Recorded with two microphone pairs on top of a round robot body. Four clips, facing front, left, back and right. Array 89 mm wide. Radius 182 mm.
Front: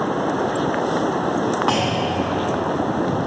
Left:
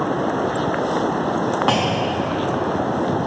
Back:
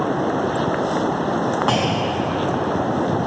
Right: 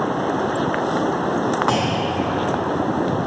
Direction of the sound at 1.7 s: 80° left.